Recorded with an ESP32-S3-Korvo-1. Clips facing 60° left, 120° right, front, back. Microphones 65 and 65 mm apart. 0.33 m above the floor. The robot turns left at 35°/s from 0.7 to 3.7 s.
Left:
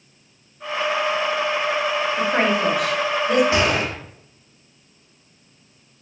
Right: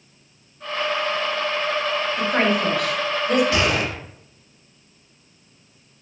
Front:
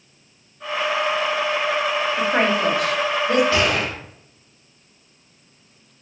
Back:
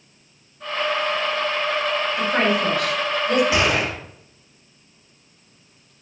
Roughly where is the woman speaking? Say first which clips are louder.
Even, front 1 dB; ahead.